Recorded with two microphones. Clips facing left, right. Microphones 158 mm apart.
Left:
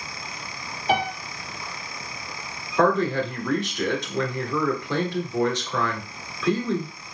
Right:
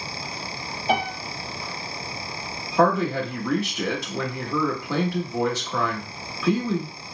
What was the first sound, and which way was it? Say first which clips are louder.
A piano: left 1 dB; 20° right (ahead or behind).